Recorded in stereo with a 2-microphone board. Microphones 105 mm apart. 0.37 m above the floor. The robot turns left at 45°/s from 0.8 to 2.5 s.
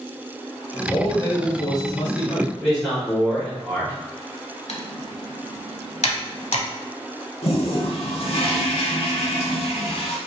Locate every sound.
0.9 s a man speaking: 150° left, 1.1 m; by 2.5 s 75° left, 1.1 m
2.6 s a man speaking: centre (ahead or behind), 1.4 m
4.7 s typing on a keyboard: 85° left, 0.7 m
7.4 s a toilet flushing: 65° left (ahead or behind), 0.8 m